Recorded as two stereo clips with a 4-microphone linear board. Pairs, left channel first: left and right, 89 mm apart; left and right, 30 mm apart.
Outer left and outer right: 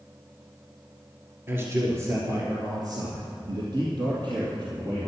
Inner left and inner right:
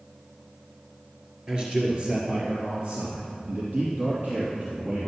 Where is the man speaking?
25° right (ahead or behind), 2 m; by 5.1 s 60° right (ahead or behind), 4 m.